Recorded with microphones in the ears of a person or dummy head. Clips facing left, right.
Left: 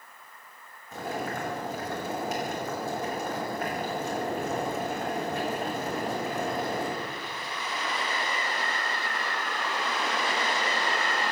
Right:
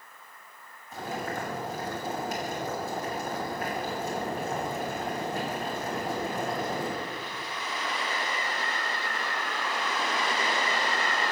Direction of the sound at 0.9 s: 65° left (ahead or behind).